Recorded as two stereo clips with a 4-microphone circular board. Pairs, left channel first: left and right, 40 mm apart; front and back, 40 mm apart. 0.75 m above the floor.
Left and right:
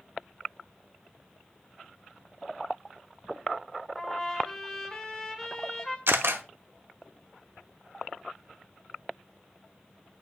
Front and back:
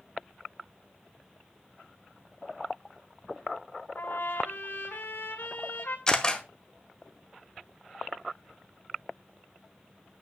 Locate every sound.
4.0 s a trumpet: 15° left, 2 m
6.1 s a camera shutter: 75° right, 1.2 m